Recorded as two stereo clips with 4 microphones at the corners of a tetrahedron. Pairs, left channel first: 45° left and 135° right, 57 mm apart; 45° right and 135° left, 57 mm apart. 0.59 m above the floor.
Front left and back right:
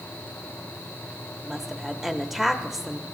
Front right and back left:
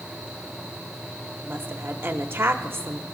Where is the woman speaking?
145° left, 1.0 m.